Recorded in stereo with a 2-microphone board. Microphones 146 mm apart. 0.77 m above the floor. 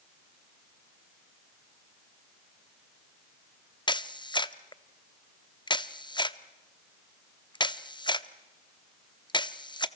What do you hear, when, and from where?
3.9 s a camera shutter: 30° left (ahead or behind), 0.7 m